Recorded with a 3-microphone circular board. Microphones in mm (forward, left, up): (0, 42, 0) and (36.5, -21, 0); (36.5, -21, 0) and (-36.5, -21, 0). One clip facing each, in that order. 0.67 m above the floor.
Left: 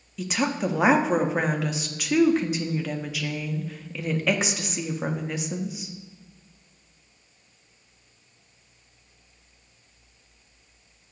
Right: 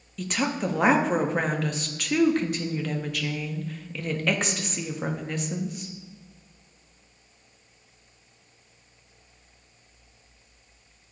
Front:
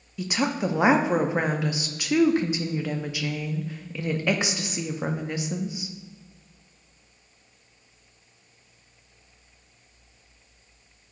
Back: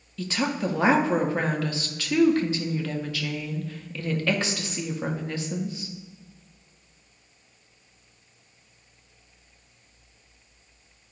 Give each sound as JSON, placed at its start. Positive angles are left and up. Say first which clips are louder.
{"t": 0.2, "sound": "a woman speaking", "louder": "left 1 dB, front 1 dB", "azimuth_deg": 40, "distance_m": 0.5}